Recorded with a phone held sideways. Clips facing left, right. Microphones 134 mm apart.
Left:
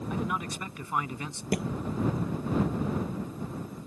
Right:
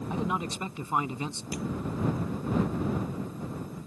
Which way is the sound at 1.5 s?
75° left (ahead or behind).